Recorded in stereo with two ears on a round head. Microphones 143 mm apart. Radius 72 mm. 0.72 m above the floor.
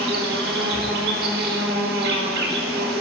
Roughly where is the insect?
Right.